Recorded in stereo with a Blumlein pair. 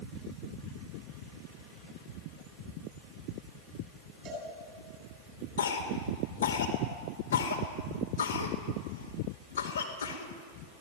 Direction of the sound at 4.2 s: 30° right.